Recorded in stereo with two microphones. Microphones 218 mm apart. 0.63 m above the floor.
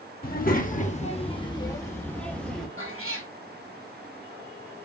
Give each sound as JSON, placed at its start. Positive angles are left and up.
{"t": 0.2, "sound": "a child speaking", "side_deg": 45, "distance_m": 0.9}
{"t": 2.8, "sound": "a cat meowing", "side_deg": -70, "distance_m": 1.5}